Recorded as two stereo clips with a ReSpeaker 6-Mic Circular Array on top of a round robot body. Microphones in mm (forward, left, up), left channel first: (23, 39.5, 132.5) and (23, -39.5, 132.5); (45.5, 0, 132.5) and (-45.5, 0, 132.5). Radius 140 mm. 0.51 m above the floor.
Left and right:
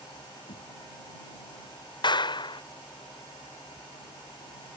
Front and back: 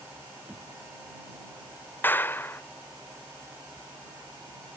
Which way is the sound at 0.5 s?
95° left.